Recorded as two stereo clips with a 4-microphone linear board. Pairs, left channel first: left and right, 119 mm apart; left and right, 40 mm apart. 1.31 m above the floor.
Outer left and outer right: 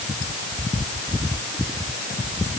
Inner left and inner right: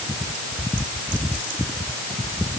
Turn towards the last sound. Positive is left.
No sound to turn to.